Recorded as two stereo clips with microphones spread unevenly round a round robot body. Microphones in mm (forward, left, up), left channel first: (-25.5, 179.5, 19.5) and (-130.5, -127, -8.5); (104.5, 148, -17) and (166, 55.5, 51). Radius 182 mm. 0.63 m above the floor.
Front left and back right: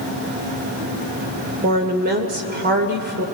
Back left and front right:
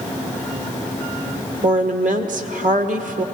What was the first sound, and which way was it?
A woman speaking, 45° right.